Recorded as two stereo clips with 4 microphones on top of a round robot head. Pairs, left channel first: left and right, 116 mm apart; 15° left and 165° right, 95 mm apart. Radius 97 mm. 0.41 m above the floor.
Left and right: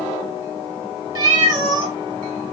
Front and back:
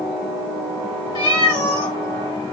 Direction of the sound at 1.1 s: 35° right.